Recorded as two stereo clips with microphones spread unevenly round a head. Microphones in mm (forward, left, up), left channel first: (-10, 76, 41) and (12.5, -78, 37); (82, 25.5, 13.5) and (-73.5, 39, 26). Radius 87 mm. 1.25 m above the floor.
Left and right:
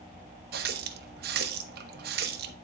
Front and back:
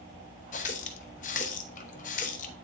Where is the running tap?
55° right, 0.7 m.